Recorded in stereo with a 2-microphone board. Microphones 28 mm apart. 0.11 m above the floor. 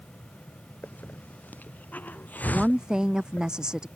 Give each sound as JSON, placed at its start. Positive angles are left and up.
{"t": 0.8, "sound": "a hiss", "side_deg": 90}
{"t": 2.5, "sound": "a woman speaking", "side_deg": -25}